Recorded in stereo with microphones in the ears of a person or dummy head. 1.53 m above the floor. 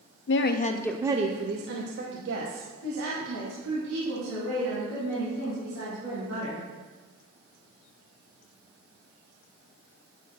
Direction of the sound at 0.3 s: 55° left (ahead or behind).